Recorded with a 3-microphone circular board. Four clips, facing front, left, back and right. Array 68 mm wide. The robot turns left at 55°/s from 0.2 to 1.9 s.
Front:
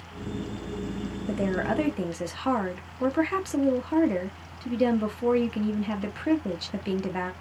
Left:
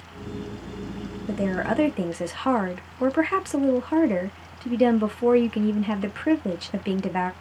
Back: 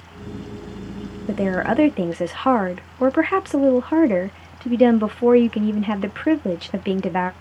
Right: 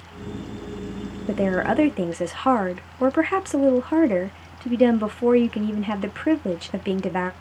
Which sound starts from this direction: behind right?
A woman speaking, at 1.3 s.